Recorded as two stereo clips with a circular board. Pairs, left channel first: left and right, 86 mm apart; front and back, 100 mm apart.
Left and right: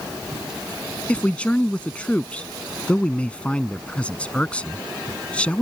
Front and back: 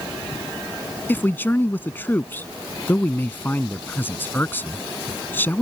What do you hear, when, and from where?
1.1 s a man speaking: 35° left